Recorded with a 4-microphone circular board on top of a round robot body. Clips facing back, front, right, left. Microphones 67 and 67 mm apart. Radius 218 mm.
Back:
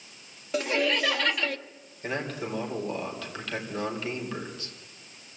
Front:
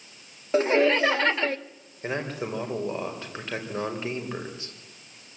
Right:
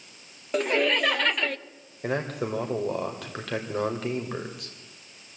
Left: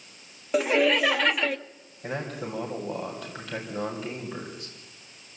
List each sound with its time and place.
0.5 s laughter: 10° left, 1.0 m
2.0 s a man speaking: 65° right, 4 m